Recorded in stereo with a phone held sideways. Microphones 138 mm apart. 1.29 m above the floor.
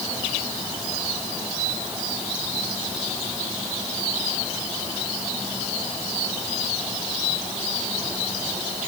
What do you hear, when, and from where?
Only background noise.